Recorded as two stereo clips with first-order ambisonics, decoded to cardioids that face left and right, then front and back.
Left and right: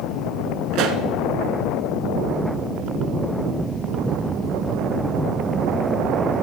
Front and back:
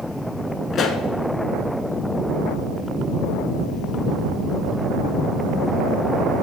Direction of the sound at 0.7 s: 65° right.